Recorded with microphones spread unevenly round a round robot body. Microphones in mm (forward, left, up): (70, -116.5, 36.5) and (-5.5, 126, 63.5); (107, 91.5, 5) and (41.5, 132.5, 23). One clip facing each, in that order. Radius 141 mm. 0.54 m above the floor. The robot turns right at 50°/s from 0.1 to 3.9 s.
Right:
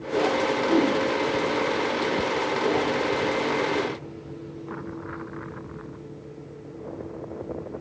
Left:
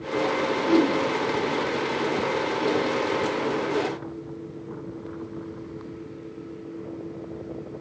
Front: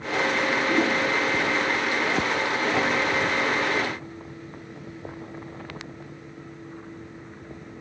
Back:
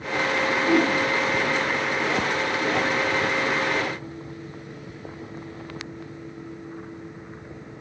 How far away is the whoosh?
About 1.4 m.